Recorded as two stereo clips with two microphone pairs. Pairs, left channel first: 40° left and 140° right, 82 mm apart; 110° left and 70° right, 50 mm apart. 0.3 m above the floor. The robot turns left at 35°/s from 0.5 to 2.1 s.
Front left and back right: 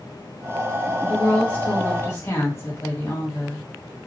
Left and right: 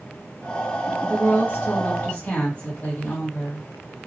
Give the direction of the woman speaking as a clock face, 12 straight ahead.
8 o'clock.